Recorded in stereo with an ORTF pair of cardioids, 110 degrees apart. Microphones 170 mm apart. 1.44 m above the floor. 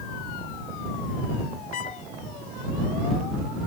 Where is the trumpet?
50° left.